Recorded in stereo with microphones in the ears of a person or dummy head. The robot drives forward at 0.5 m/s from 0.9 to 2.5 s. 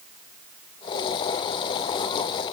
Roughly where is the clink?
No clink in this recording.